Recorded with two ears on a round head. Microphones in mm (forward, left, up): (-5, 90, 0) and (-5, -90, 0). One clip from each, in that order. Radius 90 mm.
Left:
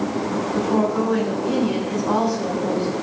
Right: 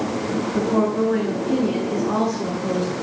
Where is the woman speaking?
40° left (ahead or behind), 4.5 m.